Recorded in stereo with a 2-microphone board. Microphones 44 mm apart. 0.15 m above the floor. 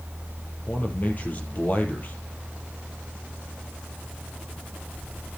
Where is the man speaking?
40° left (ahead or behind), 4 m.